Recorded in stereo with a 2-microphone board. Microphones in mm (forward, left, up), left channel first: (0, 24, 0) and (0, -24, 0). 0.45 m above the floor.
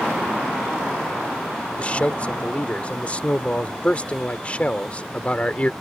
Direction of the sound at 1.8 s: 30° left (ahead or behind).